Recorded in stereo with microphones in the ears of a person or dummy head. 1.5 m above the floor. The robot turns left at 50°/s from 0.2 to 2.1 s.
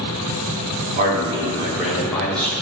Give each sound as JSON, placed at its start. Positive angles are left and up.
{"t": 0.9, "sound": "a man speaking", "azimuth_deg": -130, "distance_m": 2.5}